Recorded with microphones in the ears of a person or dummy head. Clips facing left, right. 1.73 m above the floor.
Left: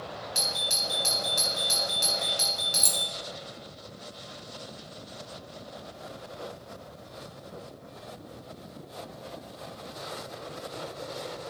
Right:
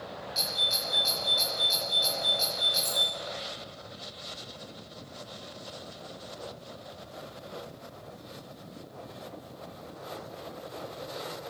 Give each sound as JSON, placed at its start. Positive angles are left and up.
{"t": 0.3, "sound": "a doorbell", "side_deg": 60, "distance_m": 2.5}
{"t": 2.7, "sound": "keys jangling", "side_deg": 60, "distance_m": 1.6}